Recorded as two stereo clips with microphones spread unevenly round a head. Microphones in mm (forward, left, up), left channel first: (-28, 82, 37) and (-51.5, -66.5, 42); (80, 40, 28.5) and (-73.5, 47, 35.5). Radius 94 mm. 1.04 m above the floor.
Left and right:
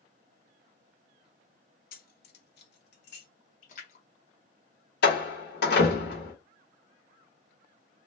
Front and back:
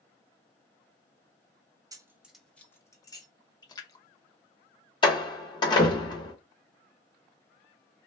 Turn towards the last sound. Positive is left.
turn(degrees=60)